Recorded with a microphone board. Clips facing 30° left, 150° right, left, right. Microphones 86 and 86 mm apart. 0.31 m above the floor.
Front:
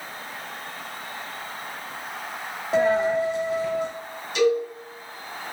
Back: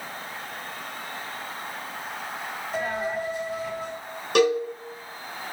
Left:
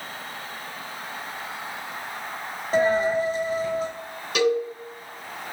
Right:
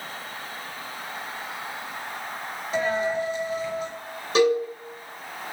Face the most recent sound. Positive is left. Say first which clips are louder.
# even, right 2 dB
turn(degrees=-145)